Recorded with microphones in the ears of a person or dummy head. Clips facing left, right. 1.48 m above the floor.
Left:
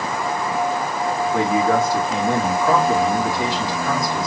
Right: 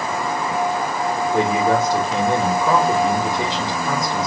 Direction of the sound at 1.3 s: 20° right (ahead or behind).